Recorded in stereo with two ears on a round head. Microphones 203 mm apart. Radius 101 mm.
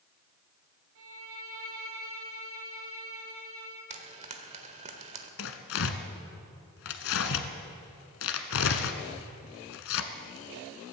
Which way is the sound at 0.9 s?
60° right (ahead or behind).